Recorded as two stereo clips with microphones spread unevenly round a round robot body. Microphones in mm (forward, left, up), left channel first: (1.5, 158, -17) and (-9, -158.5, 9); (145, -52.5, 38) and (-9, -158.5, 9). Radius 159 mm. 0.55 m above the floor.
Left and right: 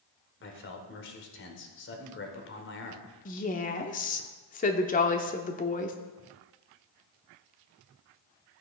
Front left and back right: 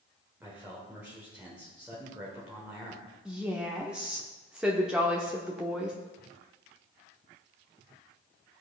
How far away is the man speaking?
About 1.5 m.